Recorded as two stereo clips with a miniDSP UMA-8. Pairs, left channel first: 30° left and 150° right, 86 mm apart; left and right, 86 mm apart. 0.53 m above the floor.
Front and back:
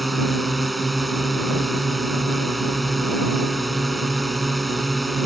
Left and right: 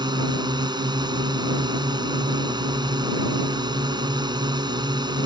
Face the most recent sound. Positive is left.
turn(degrees=-60)